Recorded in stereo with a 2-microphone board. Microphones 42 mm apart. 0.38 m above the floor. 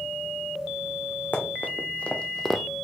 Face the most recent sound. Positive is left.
turn(degrees=-10)  # may be behind; listen again after turning